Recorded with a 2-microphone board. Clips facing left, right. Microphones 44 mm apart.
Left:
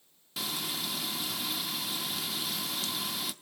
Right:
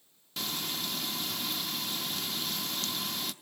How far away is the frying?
About 0.6 m.